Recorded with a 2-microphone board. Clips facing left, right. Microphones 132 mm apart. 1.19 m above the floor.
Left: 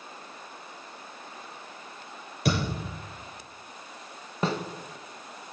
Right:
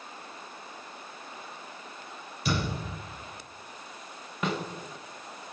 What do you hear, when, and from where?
2.5 s a thud: 70° left (ahead or behind), 7 m
4.4 s a snare drum: 35° left (ahead or behind), 1.3 m